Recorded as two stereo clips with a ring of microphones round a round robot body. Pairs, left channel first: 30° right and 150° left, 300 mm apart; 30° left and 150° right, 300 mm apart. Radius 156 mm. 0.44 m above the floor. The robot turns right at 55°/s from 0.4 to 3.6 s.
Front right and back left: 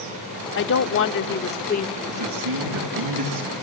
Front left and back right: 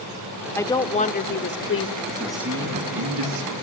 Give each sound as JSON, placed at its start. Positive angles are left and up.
{"t": 0.6, "sound": "a woman speaking", "azimuth_deg": -50, "distance_m": 1.1}
{"t": 2.1, "sound": "a man speaking", "azimuth_deg": 105, "distance_m": 3.5}